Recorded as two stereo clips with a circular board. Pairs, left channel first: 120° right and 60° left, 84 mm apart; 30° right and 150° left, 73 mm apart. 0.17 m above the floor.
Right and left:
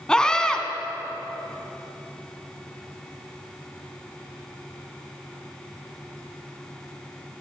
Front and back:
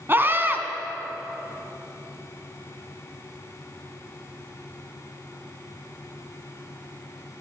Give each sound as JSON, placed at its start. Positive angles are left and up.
{"t": 0.1, "sound": "a scream", "azimuth_deg": 165, "distance_m": 1.5}